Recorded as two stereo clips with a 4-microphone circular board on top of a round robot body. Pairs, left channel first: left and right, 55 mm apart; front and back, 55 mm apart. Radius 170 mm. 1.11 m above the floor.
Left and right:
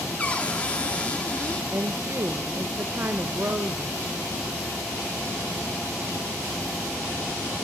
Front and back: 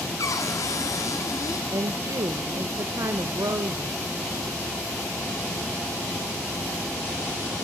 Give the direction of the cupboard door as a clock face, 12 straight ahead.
11 o'clock.